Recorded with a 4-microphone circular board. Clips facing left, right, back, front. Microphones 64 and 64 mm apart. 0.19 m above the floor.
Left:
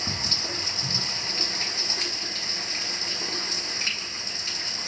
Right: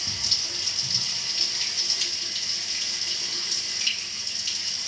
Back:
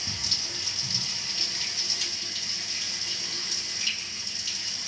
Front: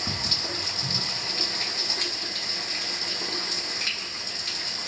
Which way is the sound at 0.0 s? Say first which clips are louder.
Left 5 dB, front 6 dB; 35° left.